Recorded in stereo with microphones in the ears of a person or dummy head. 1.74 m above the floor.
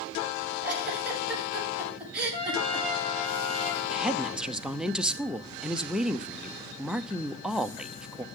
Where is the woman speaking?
5° right (ahead or behind), 0.7 m.